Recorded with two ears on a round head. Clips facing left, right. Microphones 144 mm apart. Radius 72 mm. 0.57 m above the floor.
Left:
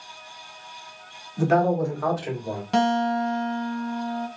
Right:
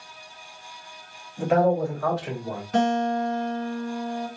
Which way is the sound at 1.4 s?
50° left (ahead or behind).